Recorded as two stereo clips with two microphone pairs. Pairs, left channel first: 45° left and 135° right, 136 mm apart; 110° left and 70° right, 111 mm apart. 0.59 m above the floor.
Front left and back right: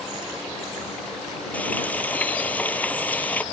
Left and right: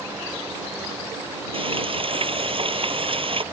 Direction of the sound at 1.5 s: 35° right.